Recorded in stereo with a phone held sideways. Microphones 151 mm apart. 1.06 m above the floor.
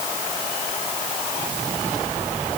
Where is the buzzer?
I don't hear a buzzer.